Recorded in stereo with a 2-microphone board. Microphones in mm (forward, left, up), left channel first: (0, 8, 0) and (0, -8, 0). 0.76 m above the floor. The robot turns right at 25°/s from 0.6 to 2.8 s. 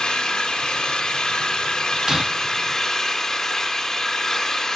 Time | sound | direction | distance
0.0 | an engine running | 90° left | 1.6 m
2.1 | breaking glass | 40° right (ahead or behind) | 0.9 m